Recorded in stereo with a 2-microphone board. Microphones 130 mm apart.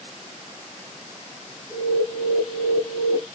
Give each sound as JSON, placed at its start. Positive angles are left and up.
{"t": 1.7, "sound": "an alarm", "side_deg": 0, "distance_m": 2.0}